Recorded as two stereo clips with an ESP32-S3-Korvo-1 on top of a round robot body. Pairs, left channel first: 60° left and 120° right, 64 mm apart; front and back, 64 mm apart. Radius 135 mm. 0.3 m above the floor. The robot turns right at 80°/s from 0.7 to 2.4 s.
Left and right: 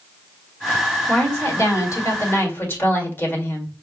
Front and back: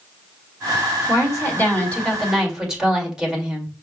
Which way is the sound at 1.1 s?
5° right.